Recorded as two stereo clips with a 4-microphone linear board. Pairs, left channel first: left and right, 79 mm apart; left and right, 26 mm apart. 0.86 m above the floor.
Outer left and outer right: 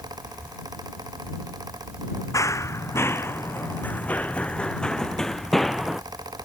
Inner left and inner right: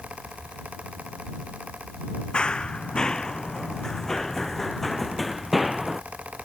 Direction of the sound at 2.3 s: 40° left (ahead or behind).